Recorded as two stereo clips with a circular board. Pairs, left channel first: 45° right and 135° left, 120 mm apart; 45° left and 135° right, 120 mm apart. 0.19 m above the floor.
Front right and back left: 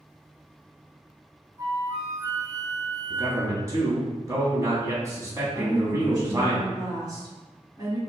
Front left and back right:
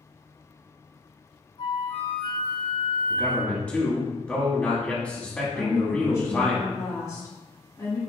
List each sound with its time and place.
1.6 s a flute: 80° left, 0.6 m
3.1 s a man speaking: 110° left, 1.3 m
5.5 s a woman speaking: 90° left, 2.0 m